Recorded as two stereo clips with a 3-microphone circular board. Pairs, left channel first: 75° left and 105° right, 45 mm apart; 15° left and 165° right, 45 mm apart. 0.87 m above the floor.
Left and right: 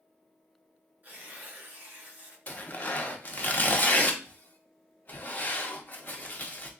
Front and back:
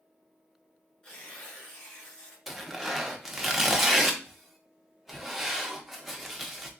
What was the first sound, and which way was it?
Tearing paper, 55° right.